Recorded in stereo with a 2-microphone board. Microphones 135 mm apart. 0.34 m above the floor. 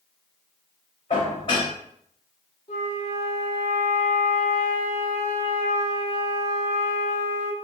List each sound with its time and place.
1.1 s dishes clattering: 45° left (ahead or behind), 1.1 m
2.7 s a flute: 55° left (ahead or behind), 0.7 m